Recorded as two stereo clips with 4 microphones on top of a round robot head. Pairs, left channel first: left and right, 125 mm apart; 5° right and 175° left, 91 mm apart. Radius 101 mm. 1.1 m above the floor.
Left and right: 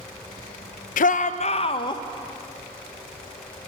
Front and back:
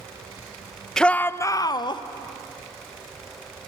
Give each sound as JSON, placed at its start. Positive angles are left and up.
{"t": 1.0, "sound": "a shout", "azimuth_deg": 80, "distance_m": 0.8}